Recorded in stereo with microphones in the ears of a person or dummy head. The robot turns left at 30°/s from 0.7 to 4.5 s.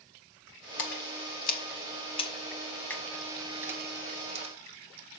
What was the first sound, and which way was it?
A splash, 75° left (ahead or behind).